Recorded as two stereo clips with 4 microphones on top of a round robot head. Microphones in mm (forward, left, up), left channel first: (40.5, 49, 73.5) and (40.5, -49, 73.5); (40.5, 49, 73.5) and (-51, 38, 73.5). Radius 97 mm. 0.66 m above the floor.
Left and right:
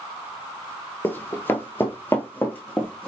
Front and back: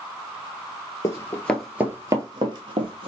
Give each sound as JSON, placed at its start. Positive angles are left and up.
{"t": 1.0, "sound": "running footsteps", "azimuth_deg": 35, "distance_m": 0.7}